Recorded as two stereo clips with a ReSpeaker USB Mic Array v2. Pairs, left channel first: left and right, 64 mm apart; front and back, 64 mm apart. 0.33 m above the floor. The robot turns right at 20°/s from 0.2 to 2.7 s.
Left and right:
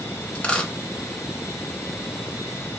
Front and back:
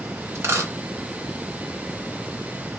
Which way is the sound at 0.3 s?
150° left.